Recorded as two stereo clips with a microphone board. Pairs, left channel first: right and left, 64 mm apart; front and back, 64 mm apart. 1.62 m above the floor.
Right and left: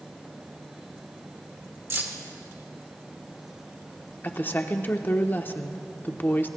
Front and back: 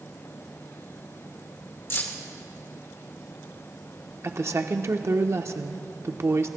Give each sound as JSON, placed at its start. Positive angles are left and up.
{"t": 1.9, "sound": "keys jangling", "azimuth_deg": 45, "distance_m": 1.5}
{"t": 4.2, "sound": "a woman speaking", "azimuth_deg": -145, "distance_m": 0.9}